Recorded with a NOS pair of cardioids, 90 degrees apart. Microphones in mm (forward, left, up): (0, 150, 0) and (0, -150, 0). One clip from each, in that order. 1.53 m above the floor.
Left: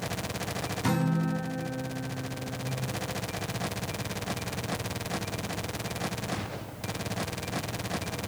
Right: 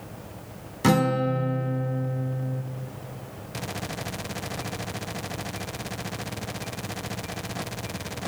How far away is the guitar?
About 0.7 m.